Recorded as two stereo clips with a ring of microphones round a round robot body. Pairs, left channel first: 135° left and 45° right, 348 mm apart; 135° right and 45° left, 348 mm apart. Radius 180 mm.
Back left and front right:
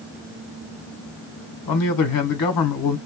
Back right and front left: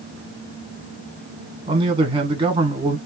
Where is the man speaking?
120° left, 1.4 m.